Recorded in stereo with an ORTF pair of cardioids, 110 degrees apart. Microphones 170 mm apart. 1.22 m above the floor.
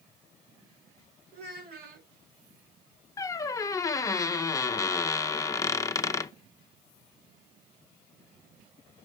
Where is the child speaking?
70° right, 4 m.